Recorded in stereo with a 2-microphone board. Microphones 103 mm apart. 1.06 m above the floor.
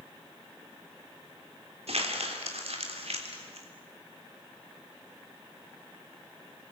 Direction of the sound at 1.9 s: 80° right.